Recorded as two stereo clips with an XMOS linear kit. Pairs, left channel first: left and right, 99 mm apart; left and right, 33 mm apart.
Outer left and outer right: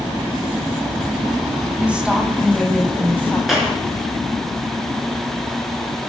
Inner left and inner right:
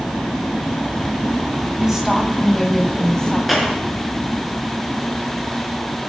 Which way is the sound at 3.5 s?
Centre (ahead or behind).